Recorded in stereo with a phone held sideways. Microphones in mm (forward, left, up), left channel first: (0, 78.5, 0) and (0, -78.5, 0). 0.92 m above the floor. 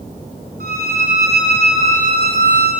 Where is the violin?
70° right (ahead or behind), 5.5 m.